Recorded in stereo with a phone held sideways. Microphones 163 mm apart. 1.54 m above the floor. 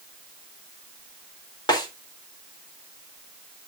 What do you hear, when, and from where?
1.7 s a snare drum: 25° left (ahead or behind), 4 m